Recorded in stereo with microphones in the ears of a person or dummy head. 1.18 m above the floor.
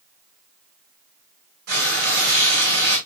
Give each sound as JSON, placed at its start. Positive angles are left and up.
{"t": 1.7, "sound": "frying", "side_deg": -60, "distance_m": 6.0}